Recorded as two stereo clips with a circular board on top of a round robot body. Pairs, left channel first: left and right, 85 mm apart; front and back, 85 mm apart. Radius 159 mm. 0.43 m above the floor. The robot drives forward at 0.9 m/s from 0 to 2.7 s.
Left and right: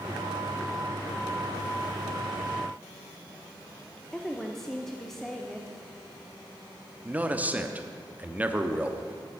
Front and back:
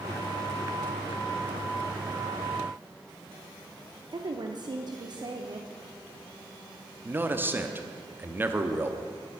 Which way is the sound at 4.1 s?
175° left.